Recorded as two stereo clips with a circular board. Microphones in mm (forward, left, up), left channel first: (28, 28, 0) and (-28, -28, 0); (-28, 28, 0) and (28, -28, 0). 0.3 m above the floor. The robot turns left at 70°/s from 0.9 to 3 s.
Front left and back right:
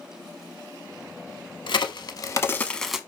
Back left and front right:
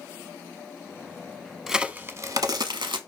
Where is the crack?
40° left, 0.7 m; by 3.0 s 50° right, 0.7 m.